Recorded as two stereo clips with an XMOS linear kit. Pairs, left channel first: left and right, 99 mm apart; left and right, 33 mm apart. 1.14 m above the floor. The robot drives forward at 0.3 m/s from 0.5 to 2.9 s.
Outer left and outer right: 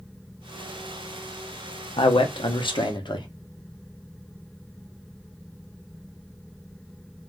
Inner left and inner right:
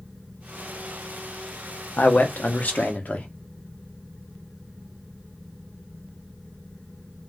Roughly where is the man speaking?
Left.